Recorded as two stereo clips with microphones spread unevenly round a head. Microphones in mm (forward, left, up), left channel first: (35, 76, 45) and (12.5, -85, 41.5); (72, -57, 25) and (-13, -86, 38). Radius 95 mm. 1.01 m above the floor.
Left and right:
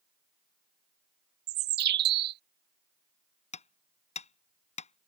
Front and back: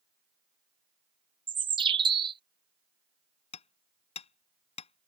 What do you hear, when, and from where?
1.5 s a bird: 130° right
3.5 s hammering: 35° left